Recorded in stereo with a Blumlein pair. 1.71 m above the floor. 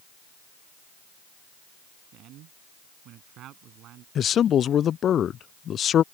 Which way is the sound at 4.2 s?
25° left.